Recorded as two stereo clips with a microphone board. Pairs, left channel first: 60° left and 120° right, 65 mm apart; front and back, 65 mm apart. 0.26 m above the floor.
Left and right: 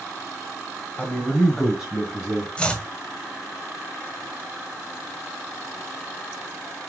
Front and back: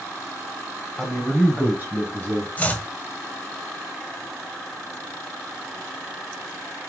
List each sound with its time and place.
1.0 s a man speaking: 65° left, 1.0 m; by 2.5 s straight behind, 1.4 m
2.6 s chopping: 15° left, 0.7 m